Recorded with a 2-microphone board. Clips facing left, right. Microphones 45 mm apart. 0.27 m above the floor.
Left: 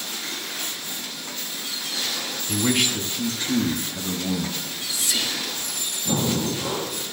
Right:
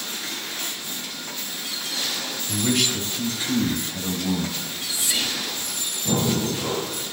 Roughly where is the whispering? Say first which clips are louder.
Even; right.